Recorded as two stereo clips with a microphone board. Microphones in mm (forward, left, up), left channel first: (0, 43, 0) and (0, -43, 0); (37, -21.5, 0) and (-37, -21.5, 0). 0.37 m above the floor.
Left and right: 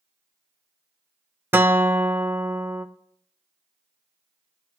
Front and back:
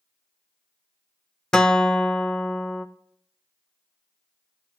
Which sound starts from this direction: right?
A guitar, at 1.5 s.